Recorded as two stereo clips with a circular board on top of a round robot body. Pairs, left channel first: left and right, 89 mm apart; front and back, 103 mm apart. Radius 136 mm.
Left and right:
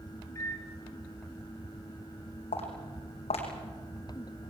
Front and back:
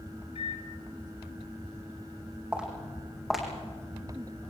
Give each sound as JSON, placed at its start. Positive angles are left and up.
{"t": 0.3, "sound": "a microwave", "azimuth_deg": 30, "distance_m": 2.5}
{"t": 2.5, "sound": "footsteps", "azimuth_deg": 100, "distance_m": 4.5}